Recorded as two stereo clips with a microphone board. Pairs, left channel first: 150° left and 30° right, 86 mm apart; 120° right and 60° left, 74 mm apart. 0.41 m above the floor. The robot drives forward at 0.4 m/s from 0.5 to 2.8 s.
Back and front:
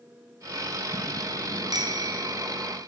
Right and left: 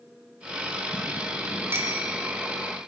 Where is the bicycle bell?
5° left, 3 m.